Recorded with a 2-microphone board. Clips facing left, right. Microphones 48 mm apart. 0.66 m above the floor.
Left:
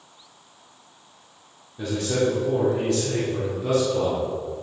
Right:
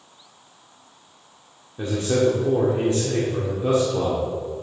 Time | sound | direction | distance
1.8 | a man speaking | 30° right (ahead or behind) | 1.4 m